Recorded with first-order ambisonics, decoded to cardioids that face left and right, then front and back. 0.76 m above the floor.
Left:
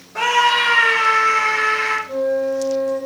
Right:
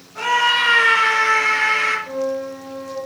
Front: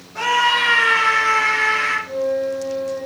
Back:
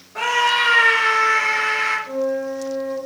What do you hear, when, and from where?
0.1 s a scream: 110° left, 1.2 m; by 2.0 s 90° right, 2 m
2.1 s a flute: 100° right, 2.5 m